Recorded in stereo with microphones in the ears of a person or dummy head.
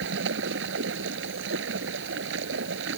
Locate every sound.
0.0 s running water: 65° right (ahead or behind)